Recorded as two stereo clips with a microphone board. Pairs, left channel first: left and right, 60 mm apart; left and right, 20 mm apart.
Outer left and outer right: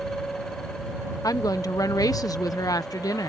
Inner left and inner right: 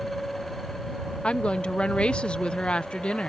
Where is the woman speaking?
80° left.